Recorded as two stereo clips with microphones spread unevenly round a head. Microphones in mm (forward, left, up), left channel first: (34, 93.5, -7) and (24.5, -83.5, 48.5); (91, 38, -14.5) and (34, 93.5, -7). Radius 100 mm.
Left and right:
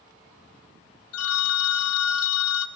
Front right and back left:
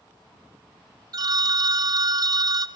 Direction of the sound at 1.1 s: 110° left.